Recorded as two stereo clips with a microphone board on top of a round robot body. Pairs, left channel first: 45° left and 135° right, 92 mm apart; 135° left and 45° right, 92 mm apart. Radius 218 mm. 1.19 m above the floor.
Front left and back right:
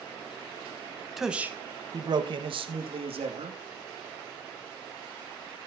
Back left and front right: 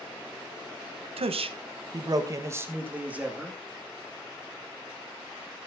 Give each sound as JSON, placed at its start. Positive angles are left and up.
{"t": 1.2, "sound": "a man speaking", "azimuth_deg": -50, "distance_m": 1.2}